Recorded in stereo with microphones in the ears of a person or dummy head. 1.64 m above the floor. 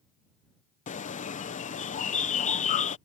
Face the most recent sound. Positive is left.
turn(degrees=35)  # may be behind; listen again after turning